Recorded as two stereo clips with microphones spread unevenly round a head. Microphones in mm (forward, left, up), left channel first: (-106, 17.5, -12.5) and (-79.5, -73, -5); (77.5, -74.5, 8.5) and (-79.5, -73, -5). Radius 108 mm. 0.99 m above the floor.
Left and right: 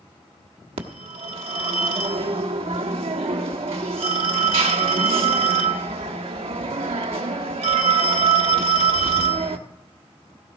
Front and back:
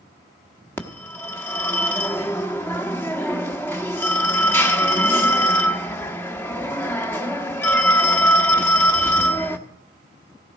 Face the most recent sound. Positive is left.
turn(degrees=-75)